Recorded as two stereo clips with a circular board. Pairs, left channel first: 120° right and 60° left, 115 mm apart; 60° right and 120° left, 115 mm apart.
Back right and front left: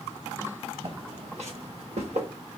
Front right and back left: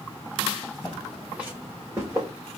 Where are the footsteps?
20° left, 1.3 m; by 2.3 s 55° left, 3 m.